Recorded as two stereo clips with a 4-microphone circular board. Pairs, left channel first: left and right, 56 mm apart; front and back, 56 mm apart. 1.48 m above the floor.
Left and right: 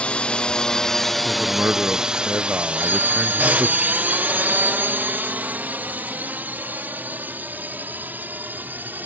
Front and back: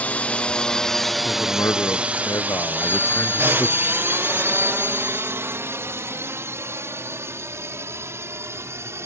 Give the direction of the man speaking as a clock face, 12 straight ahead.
1 o'clock.